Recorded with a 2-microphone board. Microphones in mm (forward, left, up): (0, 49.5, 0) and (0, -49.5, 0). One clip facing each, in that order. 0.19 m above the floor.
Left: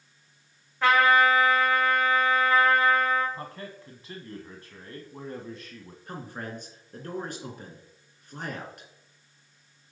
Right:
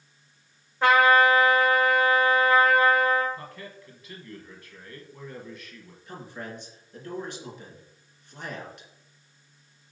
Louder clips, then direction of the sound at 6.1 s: Left 1 dB; 50° left (ahead or behind).